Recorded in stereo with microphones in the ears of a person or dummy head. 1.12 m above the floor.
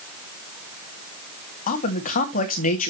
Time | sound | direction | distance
1.7 | a man speaking | 45° left (ahead or behind) | 2 m